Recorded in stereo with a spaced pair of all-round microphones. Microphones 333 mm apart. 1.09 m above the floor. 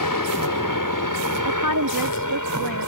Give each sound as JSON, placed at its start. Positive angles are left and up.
{"t": 0.0, "sound": "a helicopter", "side_deg": 70}
{"t": 1.4, "sound": "a woman speaking", "side_deg": -85}